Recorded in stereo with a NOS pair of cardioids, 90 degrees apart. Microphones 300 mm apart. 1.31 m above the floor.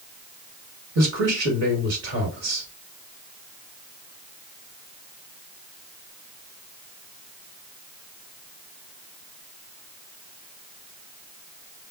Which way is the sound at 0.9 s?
55° right.